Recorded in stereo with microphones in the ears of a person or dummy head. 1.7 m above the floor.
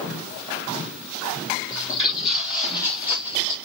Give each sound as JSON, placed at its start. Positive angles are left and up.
{"t": 1.7, "sound": "footsteps", "side_deg": 5, "distance_m": 3.0}